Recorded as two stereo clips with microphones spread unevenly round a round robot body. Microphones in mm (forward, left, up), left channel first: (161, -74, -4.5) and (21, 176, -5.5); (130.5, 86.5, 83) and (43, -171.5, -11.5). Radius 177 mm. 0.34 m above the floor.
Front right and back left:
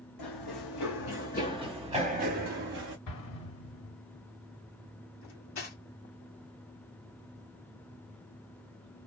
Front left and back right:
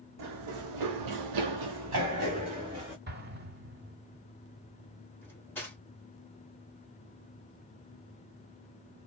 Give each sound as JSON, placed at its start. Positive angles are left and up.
{"t": 0.2, "sound": "running footsteps", "azimuth_deg": -75, "distance_m": 1.1}
{"t": 3.1, "sound": "an explosion", "azimuth_deg": -65, "distance_m": 1.9}
{"t": 5.2, "sound": "cutlery clinking", "azimuth_deg": -20, "distance_m": 1.6}